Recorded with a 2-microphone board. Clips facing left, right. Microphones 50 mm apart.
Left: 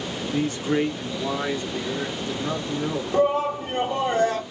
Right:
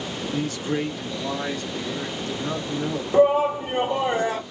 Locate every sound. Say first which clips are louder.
0.3 s a man speaking: left 3 dB; 30° left (ahead or behind), 0.6 m; by 3.0 s 20° left (ahead or behind), 1.9 m
3.1 s a shout: right 4 dB; 15° right (ahead or behind), 0.6 m